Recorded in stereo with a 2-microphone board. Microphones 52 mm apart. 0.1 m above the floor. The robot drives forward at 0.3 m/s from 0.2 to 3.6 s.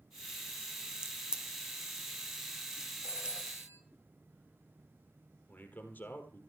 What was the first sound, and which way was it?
A crack, 15° right (ahead or behind).